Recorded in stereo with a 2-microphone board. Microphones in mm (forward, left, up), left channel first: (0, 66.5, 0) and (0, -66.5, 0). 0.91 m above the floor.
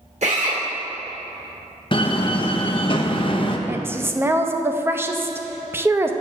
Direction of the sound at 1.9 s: 40° left (ahead or behind).